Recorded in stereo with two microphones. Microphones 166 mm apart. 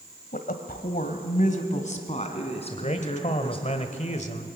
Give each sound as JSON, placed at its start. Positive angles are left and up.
{"t": 0.3, "sound": "a woman speaking", "side_deg": 60, "distance_m": 1.5}
{"t": 2.7, "sound": "a man speaking", "side_deg": 45, "distance_m": 1.5}